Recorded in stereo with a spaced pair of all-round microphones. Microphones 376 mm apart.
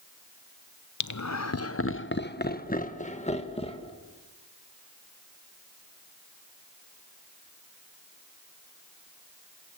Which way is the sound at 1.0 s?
50° left (ahead or behind).